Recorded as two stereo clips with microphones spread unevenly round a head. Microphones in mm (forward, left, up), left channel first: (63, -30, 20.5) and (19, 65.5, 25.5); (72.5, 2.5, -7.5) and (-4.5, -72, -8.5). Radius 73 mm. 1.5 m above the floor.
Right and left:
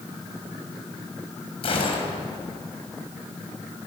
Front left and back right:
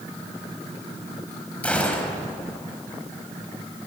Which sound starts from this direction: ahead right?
A gunshot, at 1.6 s.